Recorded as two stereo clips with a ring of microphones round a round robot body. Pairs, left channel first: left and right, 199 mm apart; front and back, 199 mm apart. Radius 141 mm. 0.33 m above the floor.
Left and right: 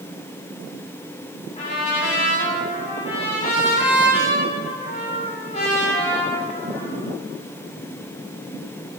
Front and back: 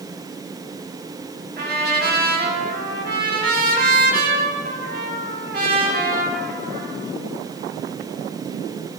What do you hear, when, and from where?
1.6 s a trumpet: 155° left, 2.5 m